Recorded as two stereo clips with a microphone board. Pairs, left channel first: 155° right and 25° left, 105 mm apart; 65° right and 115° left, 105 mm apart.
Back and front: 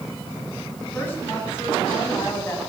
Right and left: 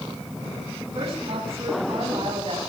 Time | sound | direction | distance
0.9 | a woman speaking | 130° left | 9 m